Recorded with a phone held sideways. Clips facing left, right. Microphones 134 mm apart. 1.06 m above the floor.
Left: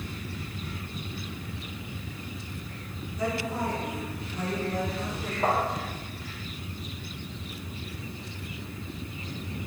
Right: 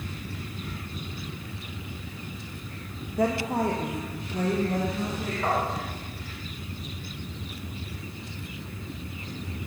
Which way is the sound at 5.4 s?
30° left (ahead or behind).